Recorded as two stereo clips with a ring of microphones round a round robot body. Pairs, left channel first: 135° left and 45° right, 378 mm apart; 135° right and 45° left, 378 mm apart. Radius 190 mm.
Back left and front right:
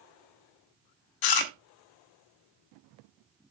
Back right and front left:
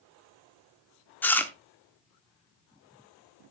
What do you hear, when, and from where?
1.2 s chewing: 140° left, 1.1 m